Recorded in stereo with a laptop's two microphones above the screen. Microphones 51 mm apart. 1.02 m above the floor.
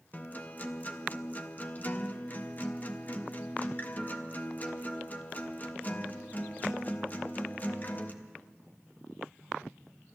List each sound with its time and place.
0.1 s a guitar: 35° left (ahead or behind), 0.6 m